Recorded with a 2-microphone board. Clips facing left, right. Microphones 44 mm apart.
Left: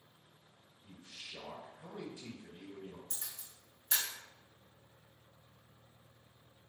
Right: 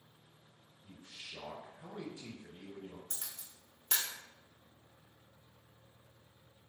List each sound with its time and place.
0.8 s a man speaking: 15° right (ahead or behind), 2.0 m
3.1 s a camera shutter: 70° right (ahead or behind), 1.1 m